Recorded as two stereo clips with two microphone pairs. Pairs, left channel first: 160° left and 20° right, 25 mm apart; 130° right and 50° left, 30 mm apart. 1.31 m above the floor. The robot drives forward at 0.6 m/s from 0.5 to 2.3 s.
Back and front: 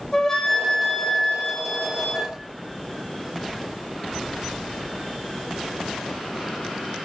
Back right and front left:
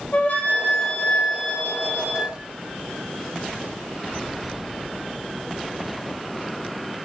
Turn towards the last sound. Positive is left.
turn(degrees=-155)